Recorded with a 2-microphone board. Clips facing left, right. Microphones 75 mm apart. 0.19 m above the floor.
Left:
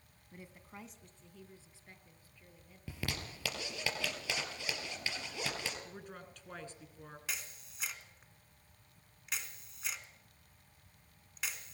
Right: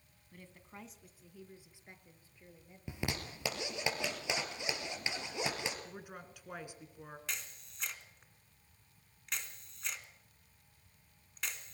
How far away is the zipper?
About 3.5 m.